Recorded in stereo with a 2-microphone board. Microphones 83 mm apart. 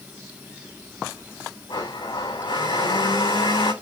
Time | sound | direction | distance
1.7 | a blender | 75° left (ahead or behind) | 6 m